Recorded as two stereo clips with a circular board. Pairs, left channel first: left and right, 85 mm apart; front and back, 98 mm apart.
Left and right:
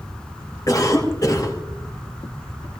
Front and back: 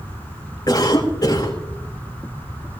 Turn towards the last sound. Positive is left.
turn(degrees=45)